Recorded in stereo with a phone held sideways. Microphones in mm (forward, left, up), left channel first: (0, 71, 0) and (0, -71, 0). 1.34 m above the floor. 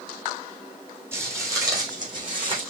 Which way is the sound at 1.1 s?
15° right (ahead or behind).